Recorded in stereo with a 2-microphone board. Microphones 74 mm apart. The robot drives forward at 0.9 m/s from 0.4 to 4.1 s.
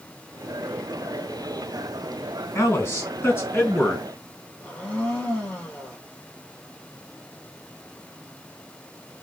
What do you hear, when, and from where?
2.5 s a man speaking: 35° left (ahead or behind), 3 m; by 4.0 s 25° left (ahead or behind), 4 m
4.6 s a blender: 20° left (ahead or behind), 3.5 m